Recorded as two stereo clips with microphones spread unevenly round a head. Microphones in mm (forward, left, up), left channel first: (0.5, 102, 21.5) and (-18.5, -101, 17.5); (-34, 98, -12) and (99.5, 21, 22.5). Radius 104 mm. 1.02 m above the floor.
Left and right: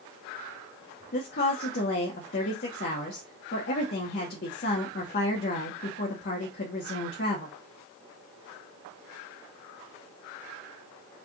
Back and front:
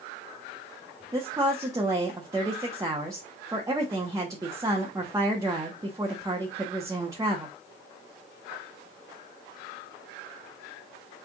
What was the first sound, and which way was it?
A woman speaking, 45° left.